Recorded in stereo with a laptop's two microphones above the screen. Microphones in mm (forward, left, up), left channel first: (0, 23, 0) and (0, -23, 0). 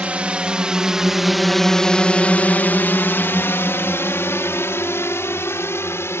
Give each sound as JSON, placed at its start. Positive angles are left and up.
{"t": 0.0, "sound": "a drone", "side_deg": -30}